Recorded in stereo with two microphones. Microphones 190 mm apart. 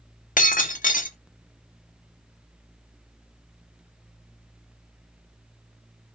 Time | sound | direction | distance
0.4 | breaking glass | 40° left (ahead or behind) | 0.7 m